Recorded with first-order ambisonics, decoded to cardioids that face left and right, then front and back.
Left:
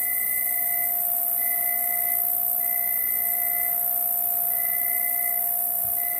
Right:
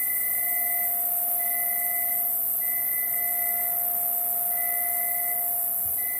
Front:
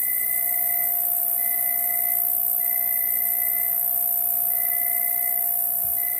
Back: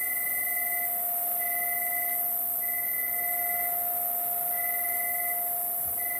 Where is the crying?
No crying in this recording.